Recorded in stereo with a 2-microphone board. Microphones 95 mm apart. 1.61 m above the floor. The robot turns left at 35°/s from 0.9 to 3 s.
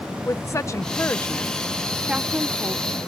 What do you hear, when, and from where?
0.2 s a woman speaking: 35° left (ahead or behind); by 3.0 s 40° right (ahead or behind)